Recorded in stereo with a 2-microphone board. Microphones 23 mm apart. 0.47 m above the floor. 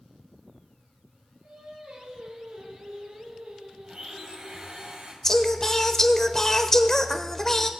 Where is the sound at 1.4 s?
80° right, 6 m.